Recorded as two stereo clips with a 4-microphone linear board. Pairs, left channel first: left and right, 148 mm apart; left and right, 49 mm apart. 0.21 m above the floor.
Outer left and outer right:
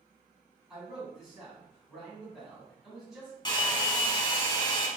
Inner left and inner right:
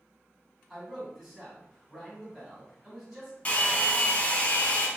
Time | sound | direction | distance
0.7 | a man speaking | centre (ahead or behind) | 1.8 m
3.5 | a hair dryer | 30° left (ahead or behind) | 0.6 m